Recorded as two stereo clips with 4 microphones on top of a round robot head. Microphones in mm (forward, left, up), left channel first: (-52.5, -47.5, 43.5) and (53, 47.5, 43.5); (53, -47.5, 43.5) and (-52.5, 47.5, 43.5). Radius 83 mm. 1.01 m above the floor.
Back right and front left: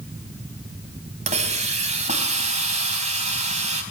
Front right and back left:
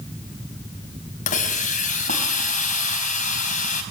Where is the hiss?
Straight ahead, 4.5 m.